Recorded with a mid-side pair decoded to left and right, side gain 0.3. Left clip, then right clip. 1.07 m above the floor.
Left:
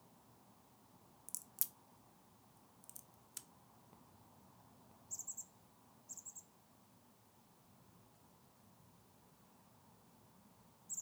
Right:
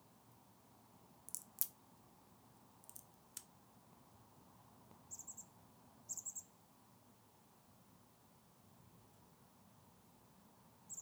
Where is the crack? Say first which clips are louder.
Left 2 dB; 15° left, 0.5 m.